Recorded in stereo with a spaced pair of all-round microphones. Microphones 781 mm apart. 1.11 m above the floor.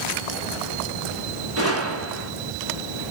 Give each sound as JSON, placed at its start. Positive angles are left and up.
{"t": 1.6, "sound": "a gunshot", "side_deg": -20, "distance_m": 1.9}